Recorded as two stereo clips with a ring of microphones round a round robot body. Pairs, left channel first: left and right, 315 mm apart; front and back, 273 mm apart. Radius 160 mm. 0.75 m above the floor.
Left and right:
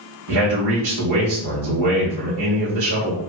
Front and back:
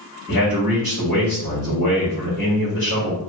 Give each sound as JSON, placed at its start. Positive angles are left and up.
{"t": 0.3, "sound": "a man speaking", "azimuth_deg": -105, "distance_m": 1.8}